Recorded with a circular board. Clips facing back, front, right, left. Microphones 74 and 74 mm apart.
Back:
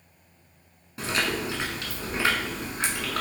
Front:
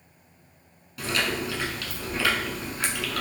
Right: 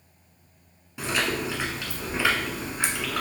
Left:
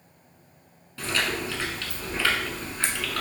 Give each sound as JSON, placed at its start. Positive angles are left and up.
{"t": 1.0, "sound": "chewing", "azimuth_deg": -150, "distance_m": 0.9}